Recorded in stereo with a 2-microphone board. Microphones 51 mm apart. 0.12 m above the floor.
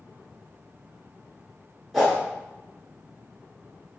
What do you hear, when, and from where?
1.9 s a whoosh: 5° left (ahead or behind), 1.6 m